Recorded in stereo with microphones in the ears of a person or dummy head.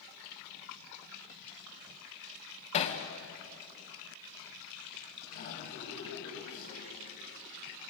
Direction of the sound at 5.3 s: 45° left (ahead or behind).